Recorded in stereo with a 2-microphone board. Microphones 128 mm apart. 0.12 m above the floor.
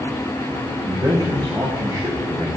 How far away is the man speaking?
About 10 m.